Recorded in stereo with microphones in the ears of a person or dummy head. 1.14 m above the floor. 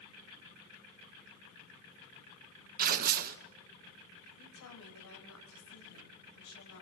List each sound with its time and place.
2.8 s tearing paper: 40° right (ahead or behind), 1.0 m
4.4 s a woman speaking: 70° left (ahead or behind), 4.5 m